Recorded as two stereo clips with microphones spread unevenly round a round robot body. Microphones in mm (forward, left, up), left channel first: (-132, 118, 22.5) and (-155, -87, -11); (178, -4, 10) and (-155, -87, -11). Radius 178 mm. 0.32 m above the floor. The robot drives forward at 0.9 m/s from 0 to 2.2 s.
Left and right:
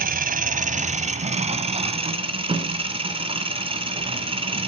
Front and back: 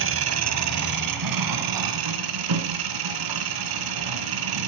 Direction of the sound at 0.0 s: 120° right.